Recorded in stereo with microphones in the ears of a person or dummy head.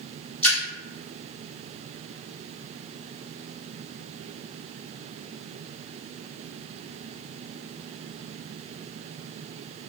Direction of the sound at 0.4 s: 5° left (ahead or behind).